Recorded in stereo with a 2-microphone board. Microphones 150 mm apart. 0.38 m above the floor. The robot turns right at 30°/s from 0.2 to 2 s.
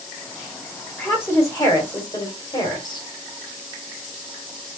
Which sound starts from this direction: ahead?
A woman speaking, at 1.0 s.